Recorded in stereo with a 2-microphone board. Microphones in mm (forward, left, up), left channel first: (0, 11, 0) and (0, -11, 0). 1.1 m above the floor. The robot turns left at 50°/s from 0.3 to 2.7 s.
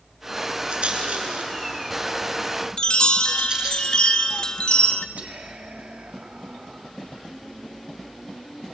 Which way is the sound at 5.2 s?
80° right.